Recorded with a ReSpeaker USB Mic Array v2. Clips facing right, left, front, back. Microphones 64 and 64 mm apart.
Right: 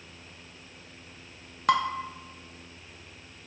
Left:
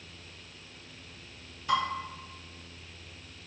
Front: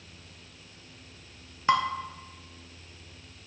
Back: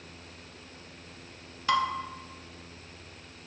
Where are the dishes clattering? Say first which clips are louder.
Right 4 dB, front 2 dB; 65° right, 0.7 m.